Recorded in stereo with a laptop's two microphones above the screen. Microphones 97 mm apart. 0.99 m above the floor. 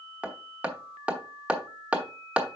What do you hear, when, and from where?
0.2 s hammering: 10° right (ahead or behind), 1.0 m